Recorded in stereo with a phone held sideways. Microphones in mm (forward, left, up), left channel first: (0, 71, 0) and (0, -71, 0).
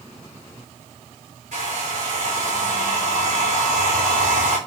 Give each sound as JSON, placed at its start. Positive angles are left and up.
{"t": 1.5, "sound": "a hair dryer", "side_deg": -75, "distance_m": 4.0}